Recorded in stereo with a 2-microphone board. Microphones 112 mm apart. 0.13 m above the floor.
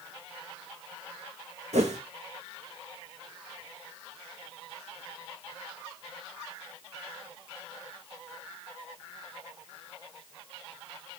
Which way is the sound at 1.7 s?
85° right.